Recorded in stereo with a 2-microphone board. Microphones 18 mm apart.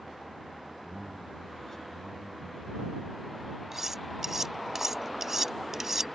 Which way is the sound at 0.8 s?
20° left (ahead or behind).